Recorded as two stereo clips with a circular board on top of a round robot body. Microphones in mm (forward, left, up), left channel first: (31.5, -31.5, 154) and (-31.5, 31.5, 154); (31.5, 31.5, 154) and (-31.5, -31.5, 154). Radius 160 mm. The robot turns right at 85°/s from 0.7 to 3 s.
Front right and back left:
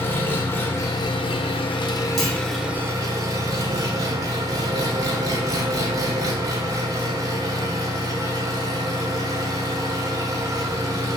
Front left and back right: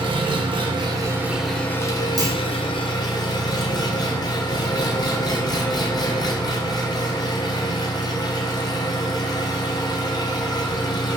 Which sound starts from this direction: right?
An engine running, at 0.0 s.